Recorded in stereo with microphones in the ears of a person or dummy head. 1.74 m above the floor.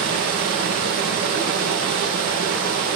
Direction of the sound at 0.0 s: 55° right (ahead or behind).